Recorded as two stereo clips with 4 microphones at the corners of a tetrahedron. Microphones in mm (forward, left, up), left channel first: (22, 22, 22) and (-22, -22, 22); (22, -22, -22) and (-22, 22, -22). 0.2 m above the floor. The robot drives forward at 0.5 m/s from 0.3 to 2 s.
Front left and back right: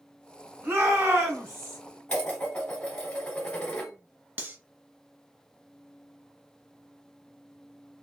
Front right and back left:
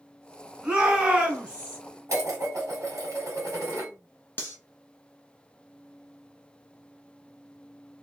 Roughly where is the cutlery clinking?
Right.